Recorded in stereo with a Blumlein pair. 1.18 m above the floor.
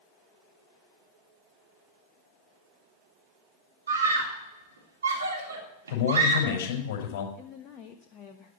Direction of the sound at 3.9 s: 70° right.